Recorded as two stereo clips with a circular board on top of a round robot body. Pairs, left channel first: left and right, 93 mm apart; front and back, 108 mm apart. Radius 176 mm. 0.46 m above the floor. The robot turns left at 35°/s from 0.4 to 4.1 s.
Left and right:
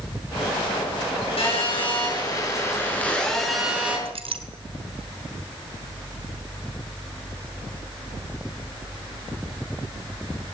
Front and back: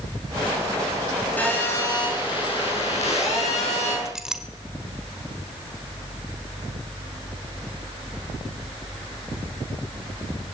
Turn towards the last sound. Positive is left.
turn(degrees=-95)